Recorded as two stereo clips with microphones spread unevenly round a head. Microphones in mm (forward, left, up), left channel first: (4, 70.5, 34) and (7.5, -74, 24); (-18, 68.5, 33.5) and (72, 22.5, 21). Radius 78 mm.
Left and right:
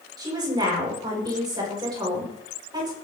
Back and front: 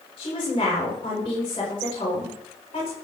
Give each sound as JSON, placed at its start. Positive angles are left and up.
{"t": 0.2, "sound": "a woman speaking", "azimuth_deg": -155, "distance_m": 7.0}